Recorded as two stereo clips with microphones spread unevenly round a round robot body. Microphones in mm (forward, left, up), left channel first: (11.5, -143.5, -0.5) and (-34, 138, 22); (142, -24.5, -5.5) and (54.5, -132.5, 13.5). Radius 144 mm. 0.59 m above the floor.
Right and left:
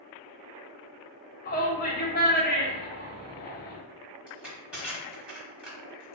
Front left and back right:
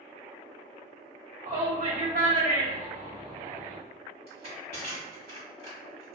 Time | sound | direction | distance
1.4 | a shout | 130° right | 1.4 m
4.3 | crushing | 175° right | 1.3 m